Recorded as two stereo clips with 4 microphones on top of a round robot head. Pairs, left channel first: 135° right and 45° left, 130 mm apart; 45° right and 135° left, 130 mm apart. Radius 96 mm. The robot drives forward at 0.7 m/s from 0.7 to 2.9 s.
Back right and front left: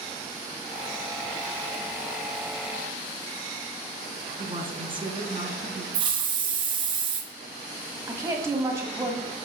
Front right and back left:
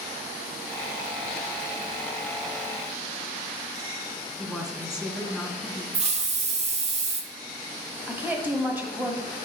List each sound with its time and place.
4.4 s a woman speaking: 55° left, 1.2 m
5.9 s a hiss: 100° left, 0.8 m
8.1 s a woman speaking: 80° left, 1.3 m